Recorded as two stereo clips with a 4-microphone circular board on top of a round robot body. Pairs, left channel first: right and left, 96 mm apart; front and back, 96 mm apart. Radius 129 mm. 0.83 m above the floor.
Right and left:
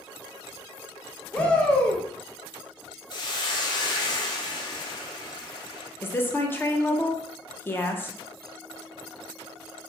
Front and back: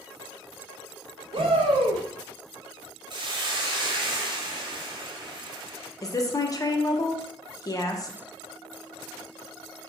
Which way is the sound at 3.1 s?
135° right.